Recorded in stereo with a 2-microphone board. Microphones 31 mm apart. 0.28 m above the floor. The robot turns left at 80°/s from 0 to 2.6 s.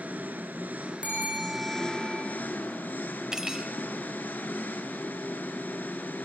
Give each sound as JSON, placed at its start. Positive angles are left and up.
{"t": 0.0, "sound": "an engine running", "azimuth_deg": -55, "distance_m": 1.5}
{"t": 1.0, "sound": "a bell", "azimuth_deg": -40, "distance_m": 4.0}
{"t": 3.3, "sound": "cutlery clinking", "side_deg": -20, "distance_m": 0.6}